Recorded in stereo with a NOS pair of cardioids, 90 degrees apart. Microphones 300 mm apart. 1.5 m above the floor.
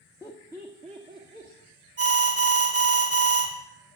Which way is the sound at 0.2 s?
15° left.